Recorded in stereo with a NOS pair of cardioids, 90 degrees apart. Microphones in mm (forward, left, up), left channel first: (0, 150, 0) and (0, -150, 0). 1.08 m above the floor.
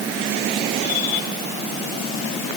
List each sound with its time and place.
Only background noise.